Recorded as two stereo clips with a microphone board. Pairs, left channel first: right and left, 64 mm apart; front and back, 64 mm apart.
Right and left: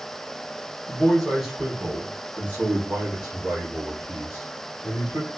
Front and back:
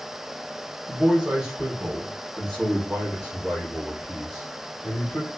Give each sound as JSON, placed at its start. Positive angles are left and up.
{"t": 0.9, "sound": "a man speaking", "azimuth_deg": -145, "distance_m": 1.0}